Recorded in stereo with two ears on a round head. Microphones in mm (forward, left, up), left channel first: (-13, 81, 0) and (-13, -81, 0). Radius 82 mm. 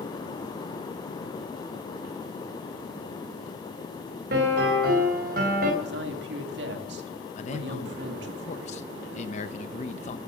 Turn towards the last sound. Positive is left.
turn(degrees=40)  # may be behind; listen again after turning